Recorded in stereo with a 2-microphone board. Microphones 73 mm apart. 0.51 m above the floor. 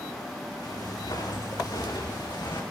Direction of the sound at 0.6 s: 65° left (ahead or behind).